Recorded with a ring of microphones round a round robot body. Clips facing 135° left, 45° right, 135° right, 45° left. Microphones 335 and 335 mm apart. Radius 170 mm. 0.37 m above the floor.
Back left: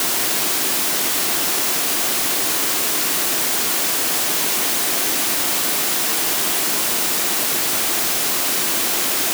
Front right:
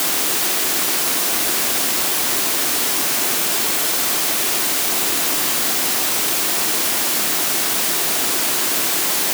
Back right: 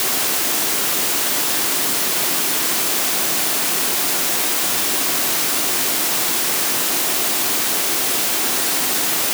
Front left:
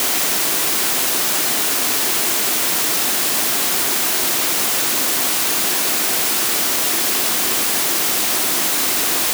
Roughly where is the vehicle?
No vehicle in this recording.